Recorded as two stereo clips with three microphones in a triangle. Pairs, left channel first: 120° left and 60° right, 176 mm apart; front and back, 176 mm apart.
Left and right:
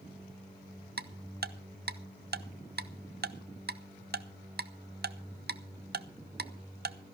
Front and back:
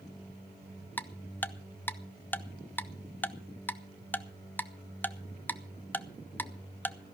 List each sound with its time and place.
1.0 s ticking: 80° right, 0.7 m